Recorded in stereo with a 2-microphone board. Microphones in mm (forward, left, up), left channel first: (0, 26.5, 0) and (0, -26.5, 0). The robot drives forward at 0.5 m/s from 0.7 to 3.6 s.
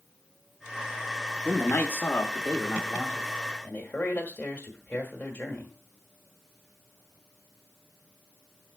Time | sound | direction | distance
1.4 | a man speaking | 35° left (ahead or behind) | 1.1 m